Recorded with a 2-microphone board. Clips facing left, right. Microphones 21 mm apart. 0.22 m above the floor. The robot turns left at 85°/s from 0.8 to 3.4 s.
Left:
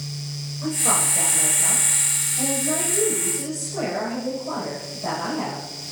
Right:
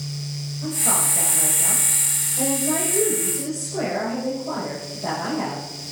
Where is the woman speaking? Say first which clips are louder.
Left 1 dB; 55° left, 9 m; by 5.6 s 165° right, 9 m.